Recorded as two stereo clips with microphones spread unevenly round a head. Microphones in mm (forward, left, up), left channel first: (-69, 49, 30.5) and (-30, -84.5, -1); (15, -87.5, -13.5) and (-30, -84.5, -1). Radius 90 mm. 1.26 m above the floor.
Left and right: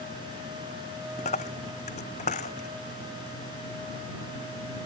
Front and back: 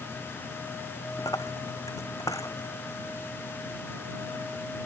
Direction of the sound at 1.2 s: 50° left.